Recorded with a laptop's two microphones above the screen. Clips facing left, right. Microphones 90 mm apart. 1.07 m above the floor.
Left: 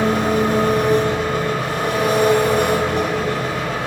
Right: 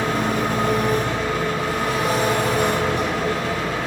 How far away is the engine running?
About 2 m.